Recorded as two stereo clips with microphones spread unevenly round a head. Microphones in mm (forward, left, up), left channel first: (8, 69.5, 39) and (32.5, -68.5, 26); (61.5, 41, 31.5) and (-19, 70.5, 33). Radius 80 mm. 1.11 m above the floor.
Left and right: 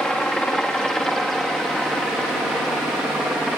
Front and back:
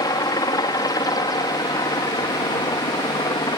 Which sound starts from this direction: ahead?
A helicopter, at 0.0 s.